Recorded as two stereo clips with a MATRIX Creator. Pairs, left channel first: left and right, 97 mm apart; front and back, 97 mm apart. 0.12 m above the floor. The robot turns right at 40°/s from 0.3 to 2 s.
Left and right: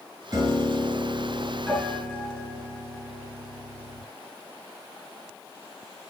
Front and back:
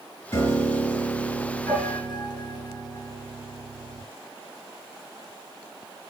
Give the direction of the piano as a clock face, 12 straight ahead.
2 o'clock.